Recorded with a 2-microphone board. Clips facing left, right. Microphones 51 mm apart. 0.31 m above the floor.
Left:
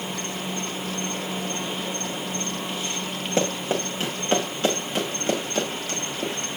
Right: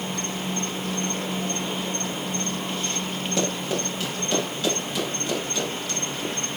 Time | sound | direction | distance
0.0 | an insect | 5° left (ahead or behind) | 1.2 m
3.4 | running footsteps | 35° left (ahead or behind) | 6 m